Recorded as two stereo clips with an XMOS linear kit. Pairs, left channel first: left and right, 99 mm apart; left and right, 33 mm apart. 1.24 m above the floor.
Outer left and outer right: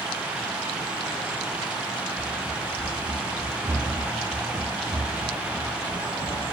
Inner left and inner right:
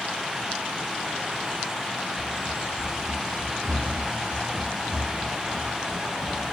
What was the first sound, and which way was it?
Running footsteps, 20° left (ahead or behind).